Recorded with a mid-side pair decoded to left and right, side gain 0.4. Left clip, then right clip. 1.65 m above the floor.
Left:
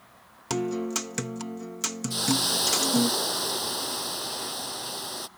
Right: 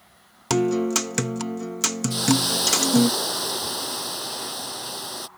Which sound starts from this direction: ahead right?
A guitar, at 0.5 s.